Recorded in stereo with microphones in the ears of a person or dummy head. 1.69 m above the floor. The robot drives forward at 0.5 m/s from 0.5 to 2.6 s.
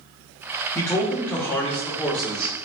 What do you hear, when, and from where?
0.8 s a man speaking: 15° left (ahead or behind), 0.8 m; by 2.5 s 5° left (ahead or behind), 1.6 m